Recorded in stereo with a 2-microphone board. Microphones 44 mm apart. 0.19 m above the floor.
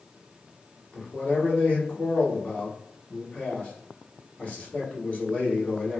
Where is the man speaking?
30° left (ahead or behind), 1.4 m.